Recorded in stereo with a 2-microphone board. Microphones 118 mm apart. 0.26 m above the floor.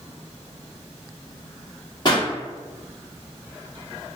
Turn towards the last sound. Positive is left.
turn(degrees=40)  # may be behind; listen again after turning